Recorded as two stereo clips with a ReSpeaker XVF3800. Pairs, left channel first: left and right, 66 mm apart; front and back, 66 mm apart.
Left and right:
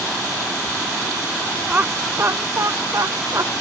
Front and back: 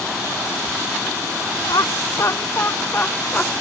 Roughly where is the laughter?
Ahead.